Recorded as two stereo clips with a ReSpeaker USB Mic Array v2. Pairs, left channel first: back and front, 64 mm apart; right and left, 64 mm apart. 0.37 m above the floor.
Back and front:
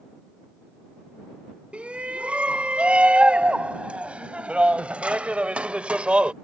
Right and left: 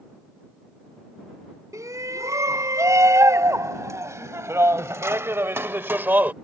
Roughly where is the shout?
Left.